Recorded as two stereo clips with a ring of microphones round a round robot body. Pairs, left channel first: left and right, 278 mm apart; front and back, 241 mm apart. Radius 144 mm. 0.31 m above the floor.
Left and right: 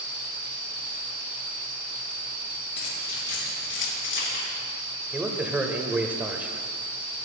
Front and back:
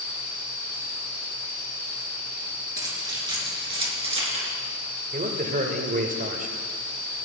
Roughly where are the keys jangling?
Left.